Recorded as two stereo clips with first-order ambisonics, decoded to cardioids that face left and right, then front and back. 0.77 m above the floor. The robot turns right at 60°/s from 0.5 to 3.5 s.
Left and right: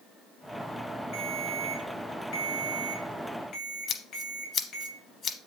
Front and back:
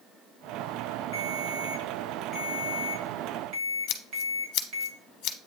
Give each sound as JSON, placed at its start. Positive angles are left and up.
{"t": 1.1, "sound": "a ringtone", "azimuth_deg": 5, "distance_m": 3.0}
{"t": 3.9, "sound": "scissors", "azimuth_deg": 30, "distance_m": 0.9}